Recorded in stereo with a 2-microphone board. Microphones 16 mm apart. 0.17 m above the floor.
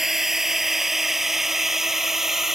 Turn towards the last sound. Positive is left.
turn(degrees=-30)  # may be behind; listen again after turning